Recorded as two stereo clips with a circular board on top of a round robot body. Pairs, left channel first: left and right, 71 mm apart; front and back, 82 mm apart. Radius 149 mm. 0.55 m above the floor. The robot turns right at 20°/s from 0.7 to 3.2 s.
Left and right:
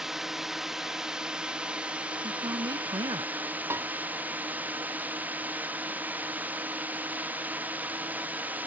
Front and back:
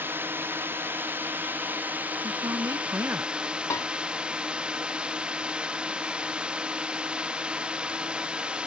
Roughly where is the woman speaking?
Behind right.